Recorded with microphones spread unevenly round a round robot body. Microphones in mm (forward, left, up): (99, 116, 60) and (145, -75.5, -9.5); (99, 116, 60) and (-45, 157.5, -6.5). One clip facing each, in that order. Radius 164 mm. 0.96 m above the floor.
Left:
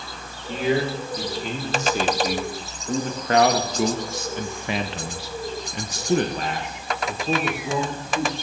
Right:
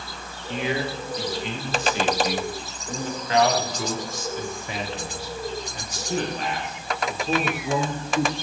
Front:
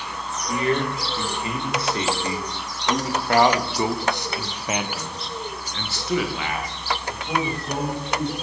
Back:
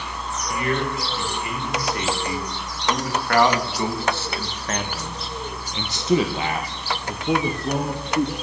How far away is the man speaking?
About 3 m.